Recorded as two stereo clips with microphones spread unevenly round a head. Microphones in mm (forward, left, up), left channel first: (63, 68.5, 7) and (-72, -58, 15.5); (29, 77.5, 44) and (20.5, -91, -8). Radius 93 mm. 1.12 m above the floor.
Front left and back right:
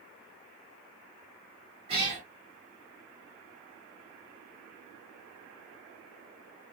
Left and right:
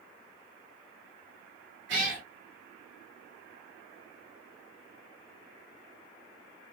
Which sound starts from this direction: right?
A cat meowing, at 1.9 s.